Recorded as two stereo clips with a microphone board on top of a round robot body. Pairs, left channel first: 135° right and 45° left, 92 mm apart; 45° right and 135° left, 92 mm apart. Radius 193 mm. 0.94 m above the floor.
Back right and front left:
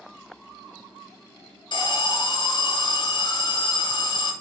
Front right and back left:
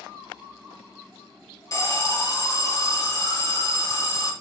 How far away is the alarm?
About 3.5 m.